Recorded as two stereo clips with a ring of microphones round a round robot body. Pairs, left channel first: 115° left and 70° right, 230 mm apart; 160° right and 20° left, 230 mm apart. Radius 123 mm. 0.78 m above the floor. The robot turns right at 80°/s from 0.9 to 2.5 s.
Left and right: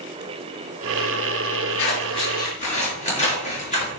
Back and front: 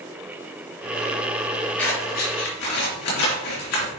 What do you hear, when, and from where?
1.8 s scissors: 120° left, 3 m; by 3.9 s 175° left, 3 m